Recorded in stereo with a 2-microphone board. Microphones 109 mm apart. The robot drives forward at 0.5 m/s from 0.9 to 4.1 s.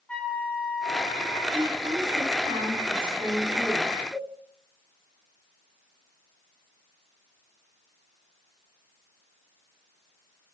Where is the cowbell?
40° left (ahead or behind), 3 m.